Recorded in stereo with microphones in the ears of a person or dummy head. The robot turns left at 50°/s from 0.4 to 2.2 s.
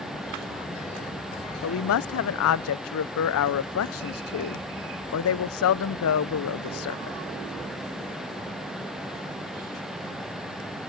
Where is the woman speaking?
60° left (ahead or behind), 0.5 m; by 7.2 s 70° left (ahead or behind), 0.5 m.